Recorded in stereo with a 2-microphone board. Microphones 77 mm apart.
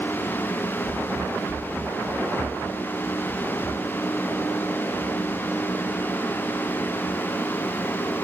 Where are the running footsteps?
50° right (ahead or behind); by 8.0 s 15° left (ahead or behind).